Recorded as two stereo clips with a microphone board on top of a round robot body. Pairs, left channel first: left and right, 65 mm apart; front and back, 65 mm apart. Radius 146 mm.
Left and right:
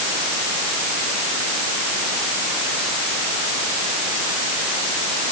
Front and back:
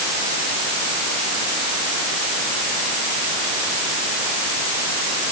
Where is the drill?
No drill in this recording.